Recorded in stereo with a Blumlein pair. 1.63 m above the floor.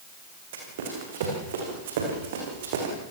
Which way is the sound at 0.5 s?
55° right.